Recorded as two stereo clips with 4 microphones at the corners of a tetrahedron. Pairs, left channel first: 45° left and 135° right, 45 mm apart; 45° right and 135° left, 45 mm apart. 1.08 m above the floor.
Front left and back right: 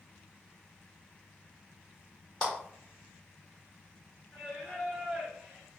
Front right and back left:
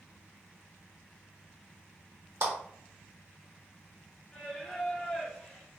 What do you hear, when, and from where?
2.4 s a clap: 105° left, 1.3 m
4.3 s singing: 80° right, 0.9 m